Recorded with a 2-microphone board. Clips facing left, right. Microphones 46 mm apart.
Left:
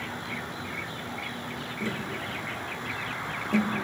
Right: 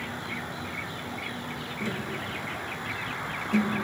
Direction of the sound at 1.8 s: 35° left (ahead or behind).